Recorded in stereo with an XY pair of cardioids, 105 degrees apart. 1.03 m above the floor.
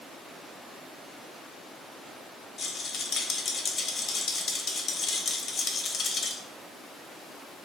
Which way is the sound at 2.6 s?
40° left.